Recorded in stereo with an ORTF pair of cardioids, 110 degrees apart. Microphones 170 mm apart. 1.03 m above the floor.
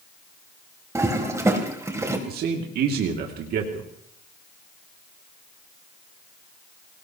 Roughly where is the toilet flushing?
Ahead.